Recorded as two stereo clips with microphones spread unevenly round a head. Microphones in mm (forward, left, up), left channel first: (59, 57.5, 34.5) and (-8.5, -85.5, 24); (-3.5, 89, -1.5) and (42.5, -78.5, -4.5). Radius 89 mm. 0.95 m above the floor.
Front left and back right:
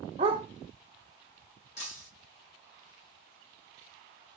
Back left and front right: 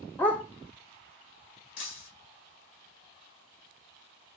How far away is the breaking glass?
About 1.8 m.